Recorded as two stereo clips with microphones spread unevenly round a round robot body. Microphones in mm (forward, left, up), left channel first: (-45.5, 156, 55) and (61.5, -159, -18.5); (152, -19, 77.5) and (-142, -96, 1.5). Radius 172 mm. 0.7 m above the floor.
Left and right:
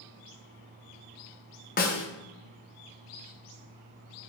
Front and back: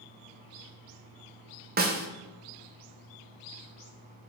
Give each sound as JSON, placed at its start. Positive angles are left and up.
{"t": 1.8, "sound": "a snare drum", "azimuth_deg": 180, "distance_m": 0.8}